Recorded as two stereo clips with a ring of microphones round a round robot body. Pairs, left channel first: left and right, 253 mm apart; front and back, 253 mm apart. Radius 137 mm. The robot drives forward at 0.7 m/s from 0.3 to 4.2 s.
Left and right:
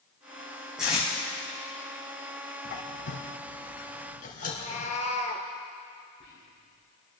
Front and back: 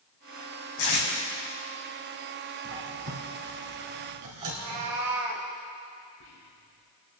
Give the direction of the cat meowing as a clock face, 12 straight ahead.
7 o'clock.